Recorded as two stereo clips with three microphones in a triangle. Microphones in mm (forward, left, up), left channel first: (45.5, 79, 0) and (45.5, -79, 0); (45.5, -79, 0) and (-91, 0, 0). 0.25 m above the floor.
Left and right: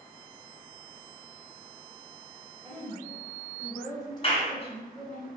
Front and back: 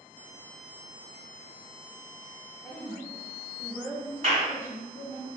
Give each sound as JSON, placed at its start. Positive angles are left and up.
{"t": 2.6, "sound": "a woman speaking", "azimuth_deg": -100, "distance_m": 1.1}
{"t": 4.2, "sound": "a clap", "azimuth_deg": 125, "distance_m": 1.3}